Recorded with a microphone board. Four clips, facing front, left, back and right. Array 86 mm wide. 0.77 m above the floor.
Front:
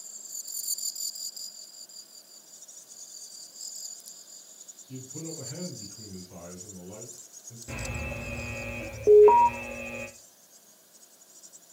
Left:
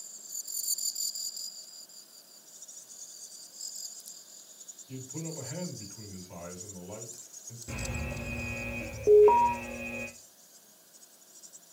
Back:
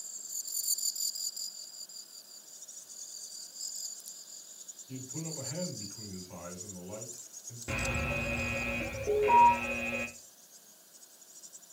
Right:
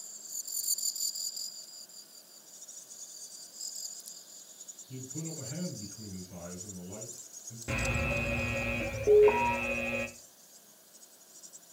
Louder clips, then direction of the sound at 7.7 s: Right 5 dB, back 2 dB; 125° right.